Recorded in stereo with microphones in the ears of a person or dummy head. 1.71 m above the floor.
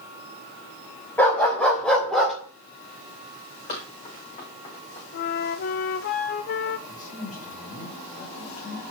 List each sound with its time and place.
1.2 s a dog barking: 15° left (ahead or behind), 4 m; by 2.4 s 5° left (ahead or behind), 2.5 m
3.7 s running footsteps: 35° left (ahead or behind), 5 m; by 5.0 s 30° left (ahead or behind), 4.5 m
5.1 s a flute: 50° left (ahead or behind), 0.6 m
6.9 s a man speaking: 40° left (ahead or behind), 3 m